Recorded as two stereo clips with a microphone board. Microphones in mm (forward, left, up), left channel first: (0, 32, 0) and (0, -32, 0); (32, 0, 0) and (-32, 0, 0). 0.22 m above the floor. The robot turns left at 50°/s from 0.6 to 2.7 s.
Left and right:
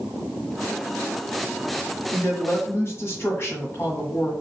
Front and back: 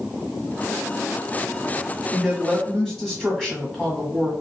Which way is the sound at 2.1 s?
110° left.